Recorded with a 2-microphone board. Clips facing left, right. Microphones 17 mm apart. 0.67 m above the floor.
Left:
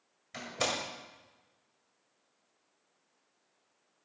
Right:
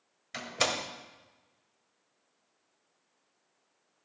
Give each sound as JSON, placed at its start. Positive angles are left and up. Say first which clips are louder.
{"t": 0.3, "sound": "a door slam", "louder": "right 3 dB", "side_deg": -35, "distance_m": 1.8}